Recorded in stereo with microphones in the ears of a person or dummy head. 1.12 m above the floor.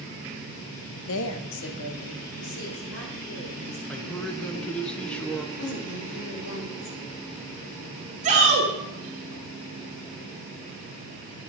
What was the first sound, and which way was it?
A woman speaking, 65° left (ahead or behind).